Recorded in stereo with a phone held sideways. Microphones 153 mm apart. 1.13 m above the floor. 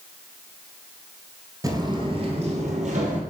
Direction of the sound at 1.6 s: 25° right (ahead or behind).